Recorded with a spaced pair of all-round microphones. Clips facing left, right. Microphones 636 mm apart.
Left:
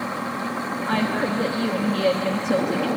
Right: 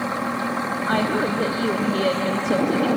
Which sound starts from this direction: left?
A woman speaking, at 0.9 s.